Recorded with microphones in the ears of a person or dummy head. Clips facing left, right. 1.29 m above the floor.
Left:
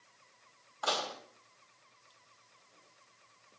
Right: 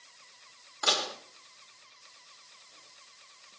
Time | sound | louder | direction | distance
0.8 | dishes clattering | right 2 dB | 30° right (ahead or behind) | 1.2 m